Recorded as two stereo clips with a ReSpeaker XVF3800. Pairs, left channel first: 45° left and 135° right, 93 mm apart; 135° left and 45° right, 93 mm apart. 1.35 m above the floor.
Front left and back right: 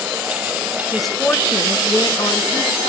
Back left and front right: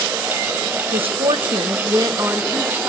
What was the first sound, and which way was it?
A woman speaking, 55° right.